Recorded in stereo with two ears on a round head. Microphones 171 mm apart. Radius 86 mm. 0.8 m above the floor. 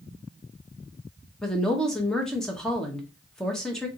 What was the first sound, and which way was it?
A woman speaking, 5° left (ahead or behind).